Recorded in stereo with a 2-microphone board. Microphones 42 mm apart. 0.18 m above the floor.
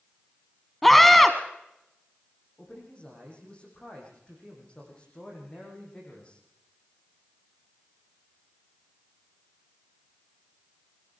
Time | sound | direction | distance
0.8 | a scream | 5° left (ahead or behind) | 1.1 m
2.6 | a man speaking | 25° left (ahead or behind) | 10 m